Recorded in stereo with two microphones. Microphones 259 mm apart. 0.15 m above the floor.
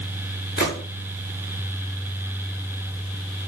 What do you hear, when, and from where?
0.6 s a gunshot: 40° left (ahead or behind), 6 m